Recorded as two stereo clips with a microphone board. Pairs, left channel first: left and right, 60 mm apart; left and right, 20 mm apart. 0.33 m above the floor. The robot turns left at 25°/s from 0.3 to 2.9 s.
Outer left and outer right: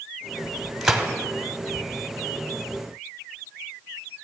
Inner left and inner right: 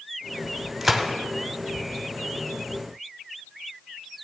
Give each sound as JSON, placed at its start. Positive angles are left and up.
{"t": 0.8, "sound": "a gunshot", "side_deg": 0, "distance_m": 0.9}